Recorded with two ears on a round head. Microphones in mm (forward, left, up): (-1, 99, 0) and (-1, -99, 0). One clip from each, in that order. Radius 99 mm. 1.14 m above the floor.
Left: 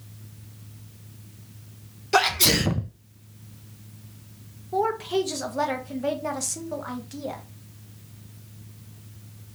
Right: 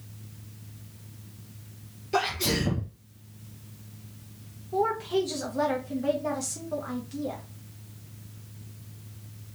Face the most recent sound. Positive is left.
turn(degrees=25)  # may be behind; listen again after turning